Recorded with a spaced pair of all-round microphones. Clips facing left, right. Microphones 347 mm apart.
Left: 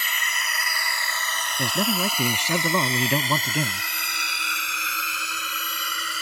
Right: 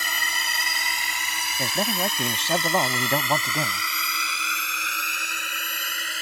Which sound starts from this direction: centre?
A man speaking, at 1.6 s.